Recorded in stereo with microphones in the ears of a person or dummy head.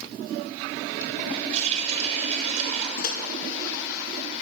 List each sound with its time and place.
1.5 s a running tap: 40° right (ahead or behind), 3 m
3.0 s a microwave: 55° left (ahead or behind), 0.7 m